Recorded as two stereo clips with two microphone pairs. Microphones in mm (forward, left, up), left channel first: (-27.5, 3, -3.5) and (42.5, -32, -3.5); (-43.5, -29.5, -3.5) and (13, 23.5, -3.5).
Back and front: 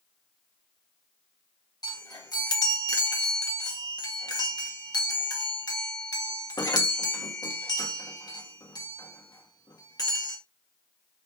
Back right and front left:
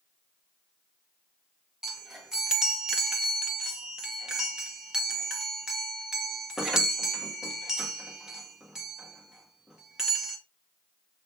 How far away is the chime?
About 1.8 m.